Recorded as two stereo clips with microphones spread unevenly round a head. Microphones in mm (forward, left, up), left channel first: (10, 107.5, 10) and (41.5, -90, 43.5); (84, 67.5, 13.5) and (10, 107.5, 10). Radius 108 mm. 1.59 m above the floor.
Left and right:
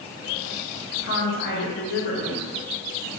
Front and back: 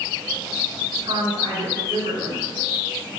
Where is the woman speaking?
125° left, 1.0 m.